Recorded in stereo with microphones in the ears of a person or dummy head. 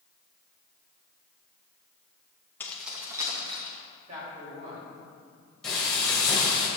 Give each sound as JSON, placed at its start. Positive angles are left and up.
{"t": 2.6, "sound": "keys jangling", "side_deg": 15, "distance_m": 0.9}
{"t": 4.1, "sound": "a man speaking", "side_deg": -40, "distance_m": 3.0}
{"t": 5.6, "sound": "frying", "side_deg": 5, "distance_m": 1.9}